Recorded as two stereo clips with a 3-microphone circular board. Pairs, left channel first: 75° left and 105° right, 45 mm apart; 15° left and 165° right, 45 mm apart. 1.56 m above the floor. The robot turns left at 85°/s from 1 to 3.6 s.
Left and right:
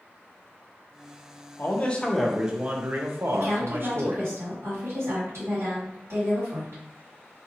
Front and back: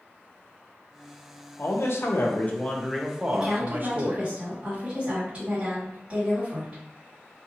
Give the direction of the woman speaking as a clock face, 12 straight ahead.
3 o'clock.